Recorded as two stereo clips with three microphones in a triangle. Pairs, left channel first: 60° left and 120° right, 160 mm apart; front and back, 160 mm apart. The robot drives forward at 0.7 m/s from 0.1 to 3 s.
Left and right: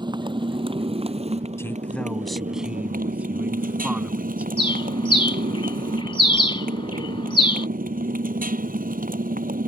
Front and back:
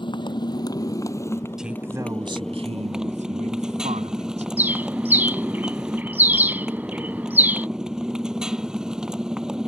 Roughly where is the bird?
Left.